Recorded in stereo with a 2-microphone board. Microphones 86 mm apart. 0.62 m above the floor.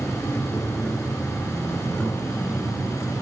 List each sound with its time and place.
0.0 s an insect: 10° left (ahead or behind), 2.5 m